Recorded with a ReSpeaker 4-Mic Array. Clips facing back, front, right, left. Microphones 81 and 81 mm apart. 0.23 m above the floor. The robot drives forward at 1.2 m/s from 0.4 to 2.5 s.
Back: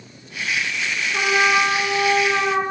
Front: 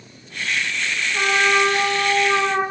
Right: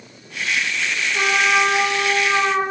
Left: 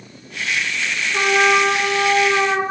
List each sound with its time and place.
1.1 s a trumpet: 130° left, 3.5 m; by 2.6 s 150° left, 4.5 m